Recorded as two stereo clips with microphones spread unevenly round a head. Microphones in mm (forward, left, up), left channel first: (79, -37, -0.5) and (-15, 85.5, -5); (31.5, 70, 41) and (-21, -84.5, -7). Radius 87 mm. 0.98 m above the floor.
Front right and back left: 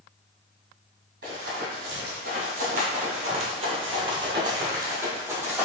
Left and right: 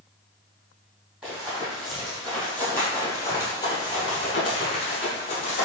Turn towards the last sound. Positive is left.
turn(degrees=50)